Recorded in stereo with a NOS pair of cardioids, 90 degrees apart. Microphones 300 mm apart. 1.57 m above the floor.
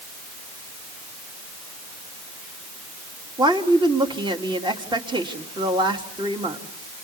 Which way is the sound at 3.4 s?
15° right.